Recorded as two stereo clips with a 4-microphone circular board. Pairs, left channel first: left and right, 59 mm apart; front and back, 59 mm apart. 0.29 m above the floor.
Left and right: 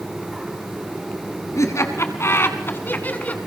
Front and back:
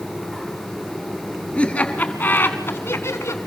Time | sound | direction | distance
1.6 | laughter | 70° left | 2.5 m